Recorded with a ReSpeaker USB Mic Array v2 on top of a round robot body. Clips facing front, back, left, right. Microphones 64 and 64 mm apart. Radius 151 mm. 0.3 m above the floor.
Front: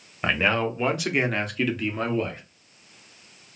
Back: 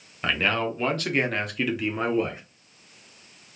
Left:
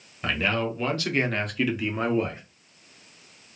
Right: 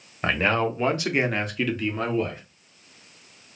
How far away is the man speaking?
About 1.1 m.